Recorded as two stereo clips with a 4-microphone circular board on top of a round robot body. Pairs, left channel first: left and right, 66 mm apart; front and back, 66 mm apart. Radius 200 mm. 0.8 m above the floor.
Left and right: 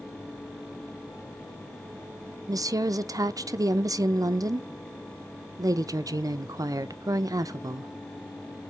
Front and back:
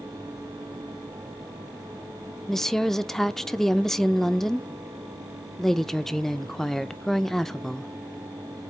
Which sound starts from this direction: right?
A woman speaking, at 2.5 s.